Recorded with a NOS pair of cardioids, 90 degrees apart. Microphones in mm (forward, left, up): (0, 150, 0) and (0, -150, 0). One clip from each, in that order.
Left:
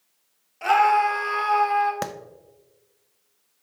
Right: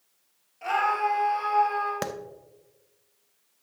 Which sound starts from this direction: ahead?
A clap, at 2.0 s.